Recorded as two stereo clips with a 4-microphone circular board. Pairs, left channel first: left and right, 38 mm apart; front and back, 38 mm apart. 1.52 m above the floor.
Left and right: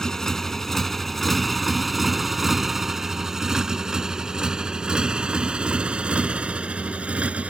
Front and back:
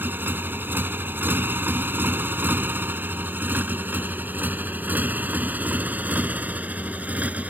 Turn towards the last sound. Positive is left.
turn(degrees=-140)